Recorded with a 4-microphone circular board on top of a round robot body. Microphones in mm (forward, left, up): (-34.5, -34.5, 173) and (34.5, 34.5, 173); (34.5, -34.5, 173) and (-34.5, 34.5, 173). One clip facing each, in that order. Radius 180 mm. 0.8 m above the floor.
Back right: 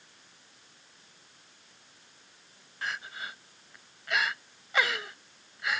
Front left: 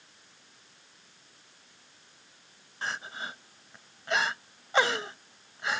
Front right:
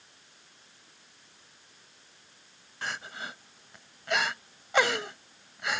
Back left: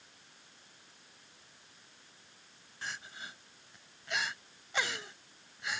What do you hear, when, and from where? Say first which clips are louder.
2.8 s crying: front left 1 dB, front right 7 dB; 15° right